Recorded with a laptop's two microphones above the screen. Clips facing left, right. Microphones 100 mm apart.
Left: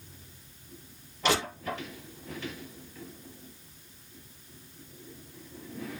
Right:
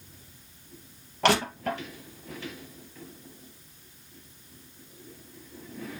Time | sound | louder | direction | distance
1.2 | crushing | right 4 dB | 75° right (ahead or behind) | 3.5 m